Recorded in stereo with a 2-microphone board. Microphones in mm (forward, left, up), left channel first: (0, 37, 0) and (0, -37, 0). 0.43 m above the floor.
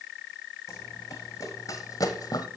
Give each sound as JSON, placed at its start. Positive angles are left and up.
{"t": 0.7, "sound": "running footsteps", "side_deg": 40, "distance_m": 1.5}